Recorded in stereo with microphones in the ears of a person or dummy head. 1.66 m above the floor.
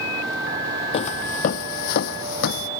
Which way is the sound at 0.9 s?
35° left (ahead or behind).